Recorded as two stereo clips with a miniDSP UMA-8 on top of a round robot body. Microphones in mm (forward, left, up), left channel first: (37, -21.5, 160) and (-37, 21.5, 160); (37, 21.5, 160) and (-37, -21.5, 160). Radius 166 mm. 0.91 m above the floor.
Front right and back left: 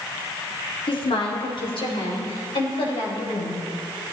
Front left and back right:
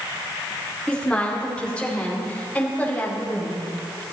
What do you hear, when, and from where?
0.9 s a woman speaking: 50° right, 2.5 m; by 3.7 s 40° right, 5.5 m